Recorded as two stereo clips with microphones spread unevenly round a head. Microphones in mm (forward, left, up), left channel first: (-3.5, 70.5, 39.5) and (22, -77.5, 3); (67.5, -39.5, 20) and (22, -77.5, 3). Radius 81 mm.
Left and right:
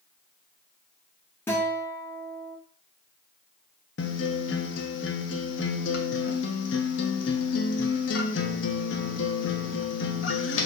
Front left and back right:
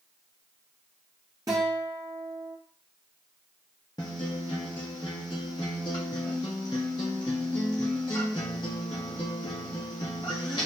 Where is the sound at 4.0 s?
90° left, 0.6 m.